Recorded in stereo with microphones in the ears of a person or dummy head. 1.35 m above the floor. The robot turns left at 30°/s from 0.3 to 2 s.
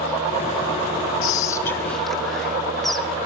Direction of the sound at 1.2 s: 30° left (ahead or behind).